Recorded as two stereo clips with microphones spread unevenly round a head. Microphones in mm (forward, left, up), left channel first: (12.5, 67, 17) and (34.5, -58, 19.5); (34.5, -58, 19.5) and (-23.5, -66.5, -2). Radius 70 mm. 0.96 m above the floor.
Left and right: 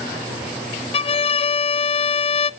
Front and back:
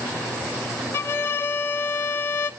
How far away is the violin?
About 0.6 m.